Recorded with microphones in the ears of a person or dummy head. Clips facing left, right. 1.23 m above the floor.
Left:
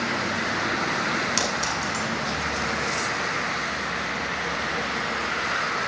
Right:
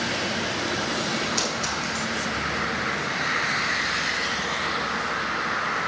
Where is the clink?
80° left, 4.5 m.